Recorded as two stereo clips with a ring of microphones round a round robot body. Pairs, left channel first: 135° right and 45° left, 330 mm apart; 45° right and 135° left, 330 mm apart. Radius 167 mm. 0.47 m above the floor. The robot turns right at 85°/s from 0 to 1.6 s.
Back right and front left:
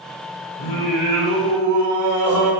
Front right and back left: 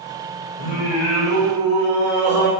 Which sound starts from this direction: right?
Singing, at 0.6 s.